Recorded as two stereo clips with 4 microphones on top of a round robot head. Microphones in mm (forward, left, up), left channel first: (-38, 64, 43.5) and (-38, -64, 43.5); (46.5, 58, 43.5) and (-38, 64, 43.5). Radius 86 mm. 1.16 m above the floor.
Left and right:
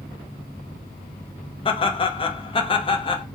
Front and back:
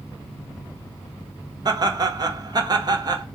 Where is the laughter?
135° left, 0.6 m.